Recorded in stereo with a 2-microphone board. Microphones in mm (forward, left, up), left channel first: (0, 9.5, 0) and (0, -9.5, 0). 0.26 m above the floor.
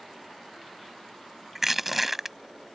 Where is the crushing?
10° right (ahead or behind).